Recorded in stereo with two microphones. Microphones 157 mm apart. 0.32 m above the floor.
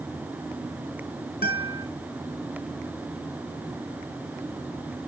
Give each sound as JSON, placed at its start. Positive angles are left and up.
{"t": 1.4, "sound": "a guitar", "side_deg": 75, "distance_m": 1.7}